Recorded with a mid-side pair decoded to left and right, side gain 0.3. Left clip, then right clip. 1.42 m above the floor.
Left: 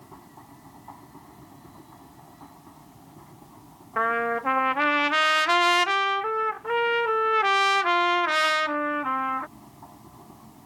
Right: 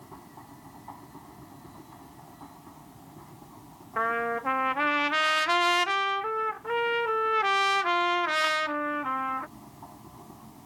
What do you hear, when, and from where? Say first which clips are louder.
0.0 s a machine running: even; straight ahead
4.0 s a trumpet: left 3 dB; 40° left